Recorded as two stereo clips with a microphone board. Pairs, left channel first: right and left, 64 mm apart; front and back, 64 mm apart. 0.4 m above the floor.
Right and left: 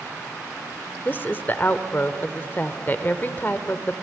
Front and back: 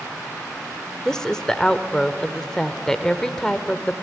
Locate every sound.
1.1 s a woman speaking: 75° right, 0.9 m